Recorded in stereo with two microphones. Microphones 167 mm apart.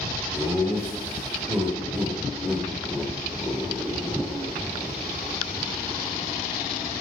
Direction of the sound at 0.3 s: 15° right (ahead or behind).